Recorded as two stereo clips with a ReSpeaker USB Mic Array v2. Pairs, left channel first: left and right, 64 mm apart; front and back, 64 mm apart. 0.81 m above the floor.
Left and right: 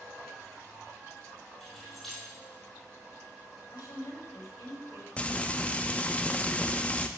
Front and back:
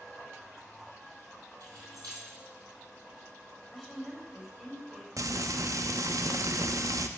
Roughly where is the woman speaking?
Left.